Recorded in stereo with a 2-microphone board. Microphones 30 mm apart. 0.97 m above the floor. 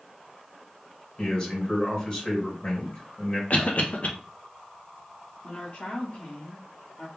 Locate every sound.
1.2 s a man speaking: 35° left (ahead or behind), 1.9 m
3.5 s a cough: 50° left (ahead or behind), 0.6 m
5.4 s a woman speaking: 45° left (ahead or behind), 1.1 m